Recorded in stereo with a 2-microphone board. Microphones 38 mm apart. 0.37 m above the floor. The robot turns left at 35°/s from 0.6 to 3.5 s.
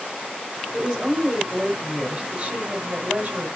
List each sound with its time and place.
0.7 s a woman speaking: 25° right, 1.2 m; by 3.5 s 120° right, 1.2 m